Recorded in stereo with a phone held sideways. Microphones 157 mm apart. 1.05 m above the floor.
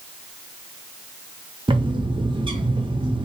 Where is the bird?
30° right (ahead or behind), 0.7 m.